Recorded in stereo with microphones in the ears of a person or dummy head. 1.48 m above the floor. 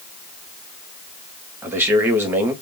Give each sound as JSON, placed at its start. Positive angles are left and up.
{"t": 1.6, "sound": "a man speaking", "side_deg": -10, "distance_m": 0.7}